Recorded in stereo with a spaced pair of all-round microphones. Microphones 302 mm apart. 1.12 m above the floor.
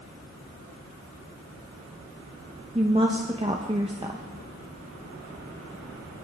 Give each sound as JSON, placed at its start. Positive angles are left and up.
{"t": 2.8, "sound": "a woman speaking", "side_deg": -20, "distance_m": 1.2}